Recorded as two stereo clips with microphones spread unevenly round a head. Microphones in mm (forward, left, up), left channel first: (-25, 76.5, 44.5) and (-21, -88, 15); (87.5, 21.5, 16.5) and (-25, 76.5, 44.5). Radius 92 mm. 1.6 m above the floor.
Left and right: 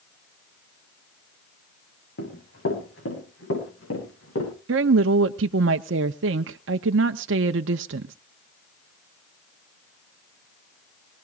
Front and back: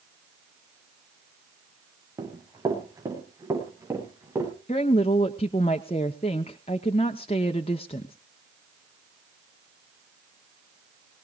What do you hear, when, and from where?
2.2 s running footsteps: 95° left, 7 m; by 4.5 s 85° left, 9.5 m
4.7 s a woman speaking: 90° right, 0.5 m